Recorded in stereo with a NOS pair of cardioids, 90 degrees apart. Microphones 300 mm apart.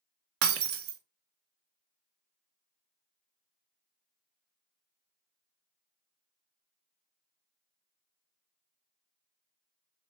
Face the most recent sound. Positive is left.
turn(degrees=-50)